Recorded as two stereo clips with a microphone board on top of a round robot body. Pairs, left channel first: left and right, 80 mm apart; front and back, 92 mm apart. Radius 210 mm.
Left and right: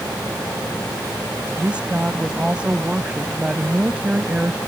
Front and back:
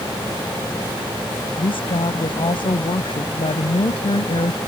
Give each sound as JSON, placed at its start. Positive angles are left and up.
{"t": 1.6, "sound": "a woman speaking", "azimuth_deg": -15}